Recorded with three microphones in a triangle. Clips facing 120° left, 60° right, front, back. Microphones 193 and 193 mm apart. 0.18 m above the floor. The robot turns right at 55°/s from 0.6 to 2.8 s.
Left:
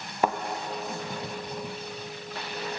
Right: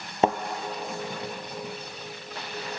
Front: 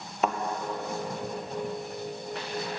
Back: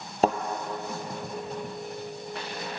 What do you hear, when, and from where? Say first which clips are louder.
0.2 s a thud: right 3 dB, back 4 dB; 125° right, 0.8 m